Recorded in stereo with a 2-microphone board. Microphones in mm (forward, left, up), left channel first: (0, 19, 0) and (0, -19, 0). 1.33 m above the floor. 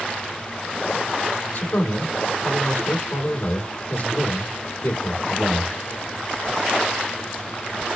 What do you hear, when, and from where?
1.5 s a man speaking: 75° left (ahead or behind), 2.5 m